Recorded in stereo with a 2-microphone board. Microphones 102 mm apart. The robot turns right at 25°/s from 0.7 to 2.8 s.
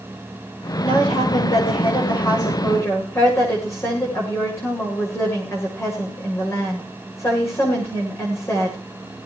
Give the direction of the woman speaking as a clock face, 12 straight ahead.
9 o'clock.